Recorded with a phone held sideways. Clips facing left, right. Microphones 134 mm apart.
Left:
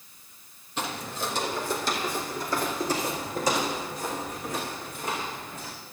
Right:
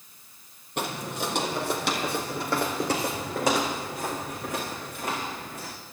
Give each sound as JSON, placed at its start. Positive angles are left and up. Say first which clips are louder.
{"t": 0.8, "sound": "footsteps", "louder": "right 2 dB", "side_deg": -60, "distance_m": 1.9}